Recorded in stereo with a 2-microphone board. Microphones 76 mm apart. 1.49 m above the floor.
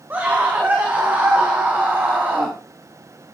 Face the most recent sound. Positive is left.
turn(degrees=-25)  # may be behind; listen again after turning